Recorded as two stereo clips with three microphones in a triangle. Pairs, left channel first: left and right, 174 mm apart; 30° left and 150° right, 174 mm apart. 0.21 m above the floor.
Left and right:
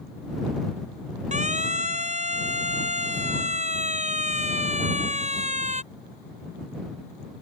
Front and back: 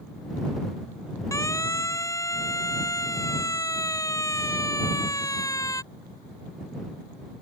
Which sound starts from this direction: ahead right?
A siren, at 1.3 s.